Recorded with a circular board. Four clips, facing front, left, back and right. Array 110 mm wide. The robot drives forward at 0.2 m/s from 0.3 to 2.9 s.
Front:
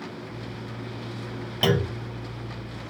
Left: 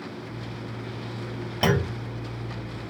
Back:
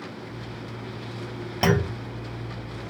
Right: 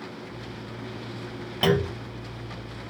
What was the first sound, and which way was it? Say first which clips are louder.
A clunk: right 1 dB, back 1 dB; 150° left.